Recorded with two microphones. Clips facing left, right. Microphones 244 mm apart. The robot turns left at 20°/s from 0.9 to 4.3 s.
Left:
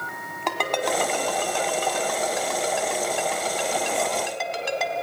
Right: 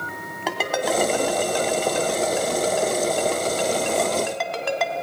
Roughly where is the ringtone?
Centre.